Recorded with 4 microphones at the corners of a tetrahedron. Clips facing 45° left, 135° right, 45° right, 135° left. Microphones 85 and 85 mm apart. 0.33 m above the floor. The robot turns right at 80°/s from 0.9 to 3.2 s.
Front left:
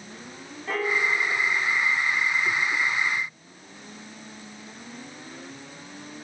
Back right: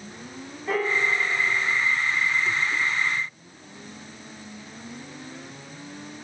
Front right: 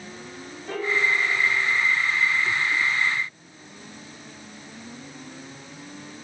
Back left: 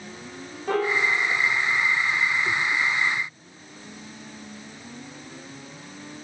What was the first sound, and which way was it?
A piano, 135° left.